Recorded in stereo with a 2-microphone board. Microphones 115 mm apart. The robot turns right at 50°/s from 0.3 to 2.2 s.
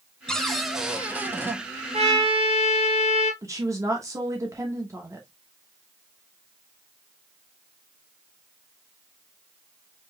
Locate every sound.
0.3 s a cupboard door: 5° left (ahead or behind), 0.6 m; by 1.6 s 20° right (ahead or behind), 0.6 m
1.9 s a trumpet: 70° right (ahead or behind), 1.0 m; by 3.3 s 60° right (ahead or behind), 1.0 m
3.4 s a woman speaking: 30° right (ahead or behind), 0.9 m